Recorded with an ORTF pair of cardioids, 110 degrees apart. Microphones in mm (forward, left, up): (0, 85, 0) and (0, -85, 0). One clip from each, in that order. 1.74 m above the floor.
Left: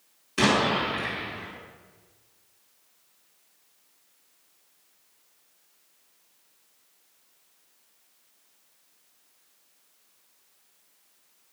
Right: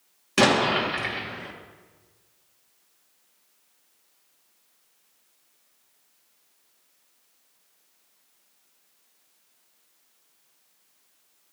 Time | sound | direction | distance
0.4 | an explosion | 65° right | 2.5 m